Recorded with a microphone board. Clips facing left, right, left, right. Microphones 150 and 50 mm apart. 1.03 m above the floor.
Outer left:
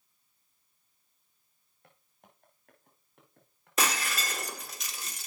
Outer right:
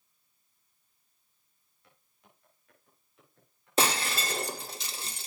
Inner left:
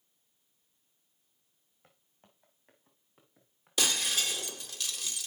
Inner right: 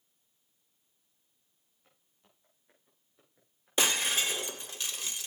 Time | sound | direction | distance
1.8 | footsteps | 55° left (ahead or behind) | 3.5 m
3.8 | breaking glass | 30° right (ahead or behind) | 0.8 m